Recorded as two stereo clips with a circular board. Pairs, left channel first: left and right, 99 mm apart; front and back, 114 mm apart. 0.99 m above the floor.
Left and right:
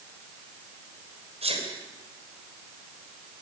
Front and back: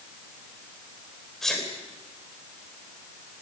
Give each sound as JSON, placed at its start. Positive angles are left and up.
{"t": 1.4, "sound": "a sneeze", "azimuth_deg": -85, "distance_m": 3.5}